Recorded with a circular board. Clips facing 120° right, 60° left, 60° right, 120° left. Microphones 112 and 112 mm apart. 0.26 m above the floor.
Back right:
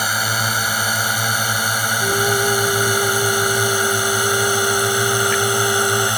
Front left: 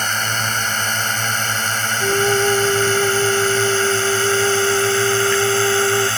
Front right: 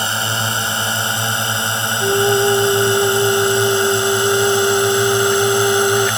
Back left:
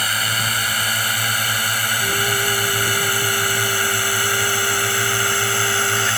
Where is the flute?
15° right.